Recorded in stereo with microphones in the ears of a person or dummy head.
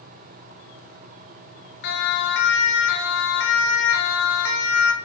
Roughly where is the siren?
Left.